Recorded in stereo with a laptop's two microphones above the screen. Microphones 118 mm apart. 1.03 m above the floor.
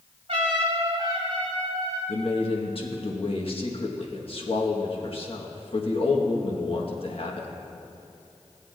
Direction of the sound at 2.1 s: 55° left (ahead or behind).